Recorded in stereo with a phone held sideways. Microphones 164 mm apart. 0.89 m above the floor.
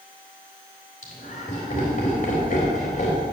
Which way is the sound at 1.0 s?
55° left (ahead or behind).